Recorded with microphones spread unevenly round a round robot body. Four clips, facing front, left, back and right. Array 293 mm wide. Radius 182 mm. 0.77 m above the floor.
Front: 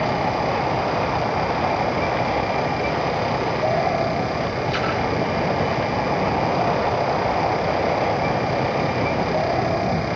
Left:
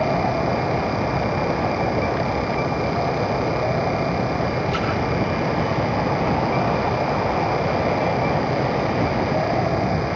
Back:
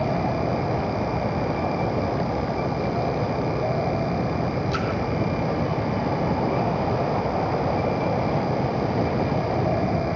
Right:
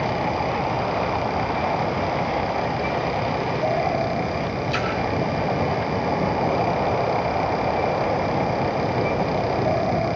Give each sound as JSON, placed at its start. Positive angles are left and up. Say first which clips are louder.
{"t": 4.7, "sound": "a splash", "louder": "left 1 dB, front 3 dB", "azimuth_deg": -170, "distance_m": 2.0}